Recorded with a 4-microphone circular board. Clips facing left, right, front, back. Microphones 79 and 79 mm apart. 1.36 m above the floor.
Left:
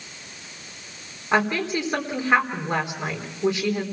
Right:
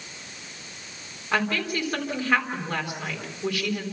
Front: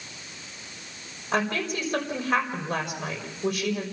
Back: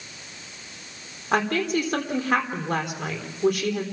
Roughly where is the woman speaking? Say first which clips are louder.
Left 4 dB, back 4 dB; behind.